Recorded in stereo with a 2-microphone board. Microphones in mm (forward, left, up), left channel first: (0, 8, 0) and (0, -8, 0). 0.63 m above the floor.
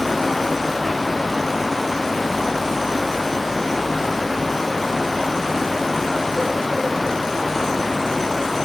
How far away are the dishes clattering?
No dishes clattering in this recording.